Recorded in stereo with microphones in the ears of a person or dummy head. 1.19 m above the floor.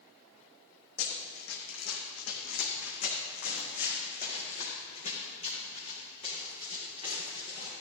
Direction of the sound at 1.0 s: 70° left (ahead or behind).